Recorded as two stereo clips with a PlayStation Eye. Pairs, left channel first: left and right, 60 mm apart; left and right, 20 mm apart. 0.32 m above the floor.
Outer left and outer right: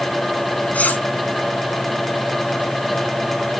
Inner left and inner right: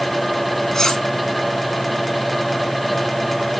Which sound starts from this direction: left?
Cutlery clinking, at 0.7 s.